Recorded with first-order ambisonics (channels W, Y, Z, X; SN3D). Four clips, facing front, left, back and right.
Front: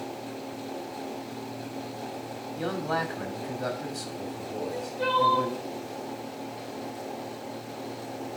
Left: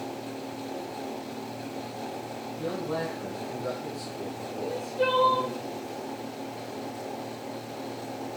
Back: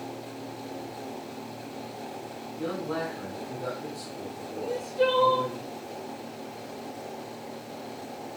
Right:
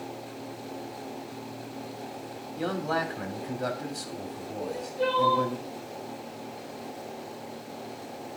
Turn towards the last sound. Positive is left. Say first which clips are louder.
# left 2 dB, back 6 dB
turn(degrees=160)